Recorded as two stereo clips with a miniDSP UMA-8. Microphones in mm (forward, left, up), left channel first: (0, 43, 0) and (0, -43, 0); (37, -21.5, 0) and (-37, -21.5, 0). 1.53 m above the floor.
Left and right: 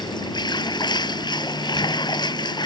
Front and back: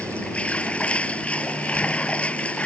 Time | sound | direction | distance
0.0 | running water | 70° left | ?